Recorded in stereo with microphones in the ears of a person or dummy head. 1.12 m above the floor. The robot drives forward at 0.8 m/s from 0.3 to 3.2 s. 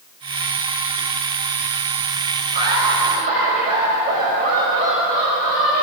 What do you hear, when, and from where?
2.5 s laughter: 45° right (ahead or behind), 5 m